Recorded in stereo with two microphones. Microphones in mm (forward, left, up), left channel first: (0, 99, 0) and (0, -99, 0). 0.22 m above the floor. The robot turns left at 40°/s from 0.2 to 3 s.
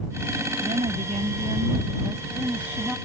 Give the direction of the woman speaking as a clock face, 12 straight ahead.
3 o'clock.